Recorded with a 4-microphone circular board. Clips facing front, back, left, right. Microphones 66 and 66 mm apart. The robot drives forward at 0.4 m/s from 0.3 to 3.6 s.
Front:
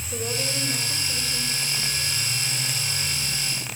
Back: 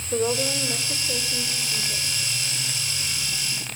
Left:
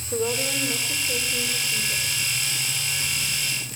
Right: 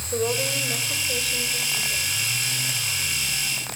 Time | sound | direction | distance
0.1 | a woman speaking | 150° left | 5.5 m